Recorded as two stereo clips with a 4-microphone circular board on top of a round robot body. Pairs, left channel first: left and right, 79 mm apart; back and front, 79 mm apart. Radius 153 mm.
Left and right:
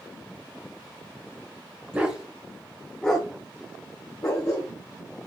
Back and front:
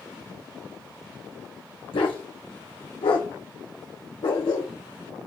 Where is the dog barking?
160° right, 1.1 m; by 4.7 s 140° left, 1.8 m.